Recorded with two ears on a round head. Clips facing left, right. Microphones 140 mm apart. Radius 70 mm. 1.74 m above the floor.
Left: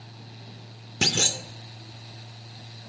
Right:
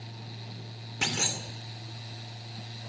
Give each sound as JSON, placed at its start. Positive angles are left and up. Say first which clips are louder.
{"t": 1.0, "sound": "a clunk", "louder": "left 5 dB", "side_deg": 45, "distance_m": 1.8}